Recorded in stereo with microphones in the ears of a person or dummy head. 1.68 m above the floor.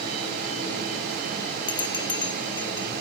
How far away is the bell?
About 0.6 m.